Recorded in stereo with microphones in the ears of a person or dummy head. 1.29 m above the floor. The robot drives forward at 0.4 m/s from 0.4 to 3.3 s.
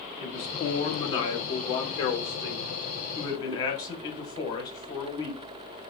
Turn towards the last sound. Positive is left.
turn(degrees=25)  # may be behind; listen again after turning